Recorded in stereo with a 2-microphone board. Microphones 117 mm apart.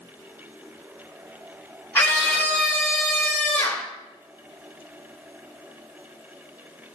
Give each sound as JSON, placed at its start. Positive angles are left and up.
{"t": 1.9, "sound": "a scream", "side_deg": 20, "distance_m": 1.1}